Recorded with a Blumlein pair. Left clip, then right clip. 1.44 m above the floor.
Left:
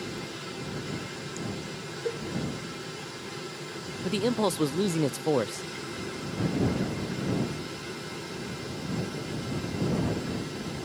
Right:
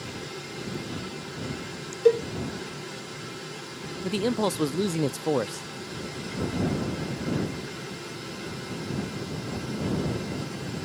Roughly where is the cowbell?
Ahead right.